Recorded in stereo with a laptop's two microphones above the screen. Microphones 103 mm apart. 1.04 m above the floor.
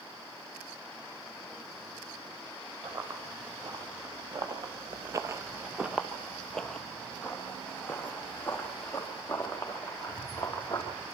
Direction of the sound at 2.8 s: 40° right (ahead or behind).